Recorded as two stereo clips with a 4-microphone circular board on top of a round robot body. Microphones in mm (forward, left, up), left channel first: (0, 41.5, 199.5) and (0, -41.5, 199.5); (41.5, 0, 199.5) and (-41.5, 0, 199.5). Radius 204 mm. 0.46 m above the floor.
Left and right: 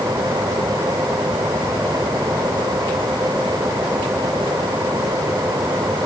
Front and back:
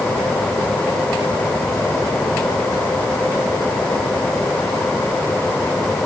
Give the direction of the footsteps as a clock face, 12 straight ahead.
No footsteps in this recording.